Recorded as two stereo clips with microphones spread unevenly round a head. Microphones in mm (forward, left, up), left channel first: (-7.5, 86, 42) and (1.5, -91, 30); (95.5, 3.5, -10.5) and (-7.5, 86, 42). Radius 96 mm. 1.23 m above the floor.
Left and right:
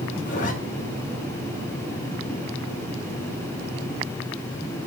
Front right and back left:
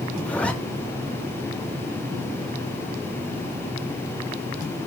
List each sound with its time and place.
0.2 s a zipper: 45° left, 1.4 m